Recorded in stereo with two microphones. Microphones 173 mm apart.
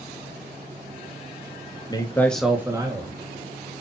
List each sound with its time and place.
1.9 s a man speaking: 25° left (ahead or behind), 0.9 m; by 3.8 s 45° right (ahead or behind), 1.4 m